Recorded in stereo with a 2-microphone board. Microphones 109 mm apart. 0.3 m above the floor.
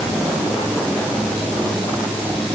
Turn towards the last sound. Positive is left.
No sound to turn to.